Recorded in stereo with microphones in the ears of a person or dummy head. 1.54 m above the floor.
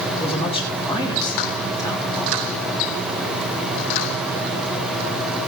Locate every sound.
0.2 s a man speaking: 25° left (ahead or behind), 5.5 m; by 2.5 s 5° left (ahead or behind), 5.5 m